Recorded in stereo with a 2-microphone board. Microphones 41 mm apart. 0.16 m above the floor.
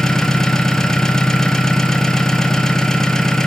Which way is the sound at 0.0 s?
10° left (ahead or behind).